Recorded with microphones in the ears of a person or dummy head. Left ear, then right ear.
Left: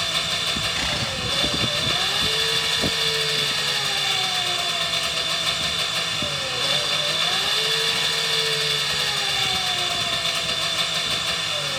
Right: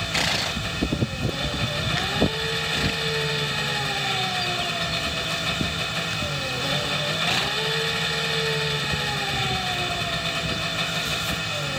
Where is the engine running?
50° left (ahead or behind).